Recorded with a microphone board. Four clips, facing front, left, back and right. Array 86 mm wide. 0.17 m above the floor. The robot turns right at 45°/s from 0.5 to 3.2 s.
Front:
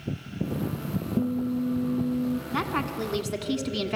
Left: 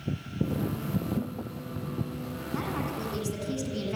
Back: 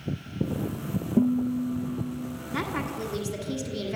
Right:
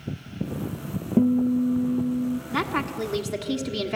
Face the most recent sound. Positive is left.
turn(degrees=-35)